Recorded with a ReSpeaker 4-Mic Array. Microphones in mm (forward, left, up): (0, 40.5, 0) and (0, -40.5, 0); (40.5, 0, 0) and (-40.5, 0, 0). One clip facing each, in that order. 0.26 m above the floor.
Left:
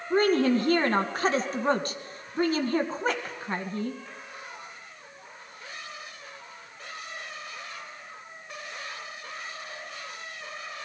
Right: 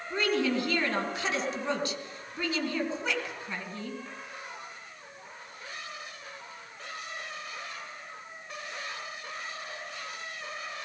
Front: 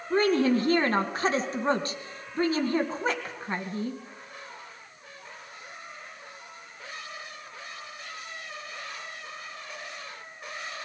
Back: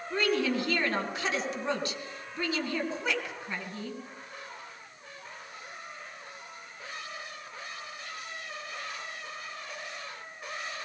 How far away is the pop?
No pop in this recording.